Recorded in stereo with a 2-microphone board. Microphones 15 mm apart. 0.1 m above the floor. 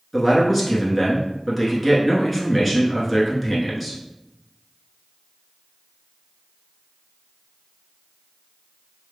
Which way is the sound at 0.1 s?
Centre (ahead or behind).